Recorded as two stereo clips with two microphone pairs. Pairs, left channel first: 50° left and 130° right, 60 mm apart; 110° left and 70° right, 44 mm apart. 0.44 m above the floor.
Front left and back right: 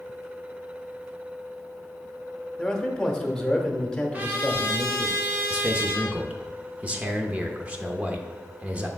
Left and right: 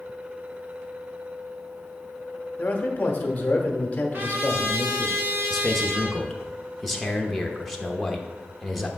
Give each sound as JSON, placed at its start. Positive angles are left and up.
{"t": 2.6, "sound": "a man speaking", "azimuth_deg": 120, "distance_m": 1.1}
{"t": 4.1, "sound": "a trumpet", "azimuth_deg": -80, "distance_m": 1.5}
{"t": 5.5, "sound": "a man speaking", "azimuth_deg": -160, "distance_m": 0.8}